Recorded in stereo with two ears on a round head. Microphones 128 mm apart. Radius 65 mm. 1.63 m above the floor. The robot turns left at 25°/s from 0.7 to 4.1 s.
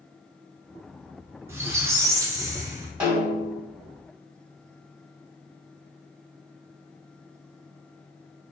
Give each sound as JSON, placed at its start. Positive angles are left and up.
{"t": 1.5, "sound": "a squeak", "side_deg": -20, "distance_m": 0.5}
{"t": 3.0, "sound": "a snare drum", "side_deg": -10, "distance_m": 1.6}